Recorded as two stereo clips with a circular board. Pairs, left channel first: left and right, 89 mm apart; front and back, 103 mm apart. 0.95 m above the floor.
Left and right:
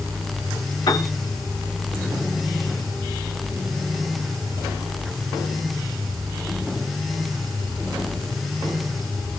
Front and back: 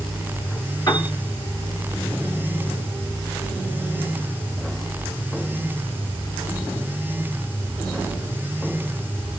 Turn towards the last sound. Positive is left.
turn(degrees=50)